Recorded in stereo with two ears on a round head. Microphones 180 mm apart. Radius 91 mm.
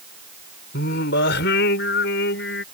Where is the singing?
55° left (ahead or behind).